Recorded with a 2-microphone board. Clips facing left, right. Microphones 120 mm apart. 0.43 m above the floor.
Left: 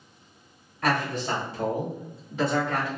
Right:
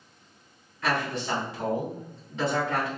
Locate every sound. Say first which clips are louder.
0.8 s a man speaking: left 2 dB; 45° left (ahead or behind), 1.2 m; by 2.9 s 10° right (ahead or behind), 1.1 m